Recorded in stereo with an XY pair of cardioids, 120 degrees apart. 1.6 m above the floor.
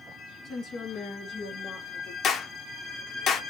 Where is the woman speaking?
50° left, 1.8 m; by 2.1 s 55° left, 3 m.